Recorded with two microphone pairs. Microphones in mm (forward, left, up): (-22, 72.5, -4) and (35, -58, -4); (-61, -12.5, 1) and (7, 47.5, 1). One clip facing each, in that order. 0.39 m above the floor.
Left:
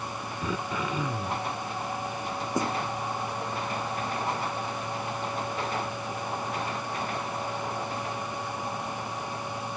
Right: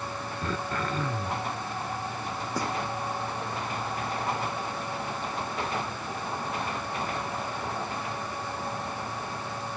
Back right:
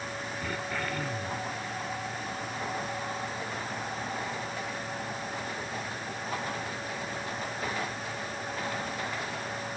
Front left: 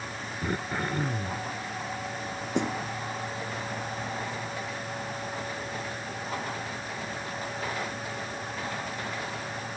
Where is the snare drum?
45° left.